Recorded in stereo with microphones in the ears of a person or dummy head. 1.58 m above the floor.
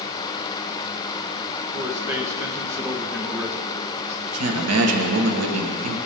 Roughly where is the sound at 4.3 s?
Right.